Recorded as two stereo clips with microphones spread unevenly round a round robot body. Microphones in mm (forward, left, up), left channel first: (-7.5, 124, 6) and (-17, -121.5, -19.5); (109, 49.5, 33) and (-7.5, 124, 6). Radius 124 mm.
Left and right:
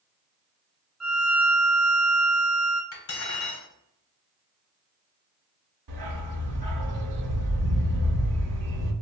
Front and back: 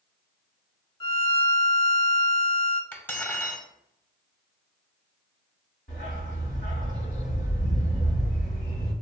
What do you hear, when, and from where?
1.0 s a violin: straight ahead, 0.5 m
2.9 s cutlery clinking: 45° left, 0.8 m
5.9 s a dog barking: 90° right, 0.8 m